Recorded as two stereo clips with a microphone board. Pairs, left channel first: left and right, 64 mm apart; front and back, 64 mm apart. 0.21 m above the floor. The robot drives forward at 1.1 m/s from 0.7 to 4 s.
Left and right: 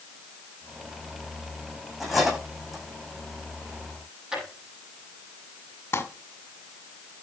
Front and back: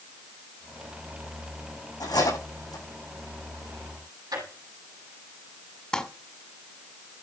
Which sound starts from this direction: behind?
A drawer, at 4.3 s.